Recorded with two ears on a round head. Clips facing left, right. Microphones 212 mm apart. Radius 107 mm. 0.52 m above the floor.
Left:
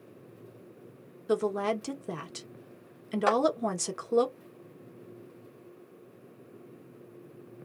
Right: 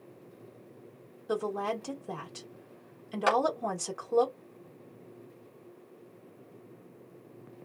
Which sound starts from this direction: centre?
A clap, at 3.3 s.